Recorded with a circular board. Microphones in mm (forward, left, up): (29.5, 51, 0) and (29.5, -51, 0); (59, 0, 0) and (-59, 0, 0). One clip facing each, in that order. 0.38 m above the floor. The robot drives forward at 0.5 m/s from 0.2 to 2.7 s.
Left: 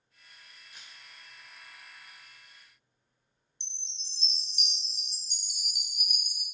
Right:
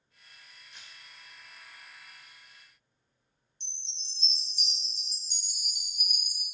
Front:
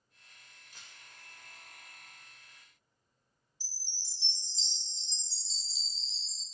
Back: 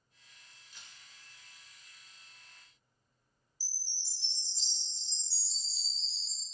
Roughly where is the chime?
Left.